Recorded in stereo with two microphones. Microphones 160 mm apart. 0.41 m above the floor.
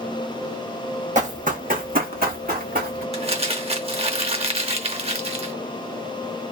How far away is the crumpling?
About 0.7 m.